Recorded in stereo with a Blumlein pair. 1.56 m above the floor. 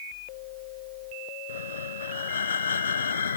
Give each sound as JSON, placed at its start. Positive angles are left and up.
{"t": 1.5, "sound": "breathing", "azimuth_deg": 70}